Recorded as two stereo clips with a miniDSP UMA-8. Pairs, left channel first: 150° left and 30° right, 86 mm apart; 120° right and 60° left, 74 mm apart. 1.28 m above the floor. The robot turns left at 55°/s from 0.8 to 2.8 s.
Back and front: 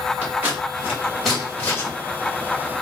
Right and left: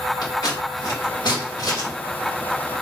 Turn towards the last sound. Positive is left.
turn(degrees=155)